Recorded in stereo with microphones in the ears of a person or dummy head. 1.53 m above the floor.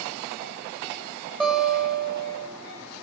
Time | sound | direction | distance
1.4 | a guitar | centre (ahead or behind) | 9 m